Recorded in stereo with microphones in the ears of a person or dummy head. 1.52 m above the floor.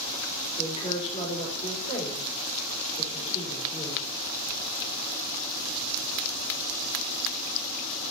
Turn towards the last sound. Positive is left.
turn(degrees=30)  # may be behind; listen again after turning